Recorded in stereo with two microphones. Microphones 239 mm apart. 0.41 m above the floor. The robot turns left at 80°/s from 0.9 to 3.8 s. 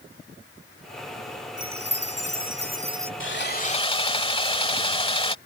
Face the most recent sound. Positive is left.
turn(degrees=25)